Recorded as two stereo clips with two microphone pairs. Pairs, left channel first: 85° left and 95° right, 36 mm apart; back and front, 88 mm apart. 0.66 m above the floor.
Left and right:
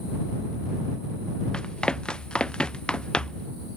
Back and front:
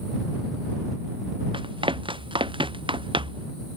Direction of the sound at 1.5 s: 20° left.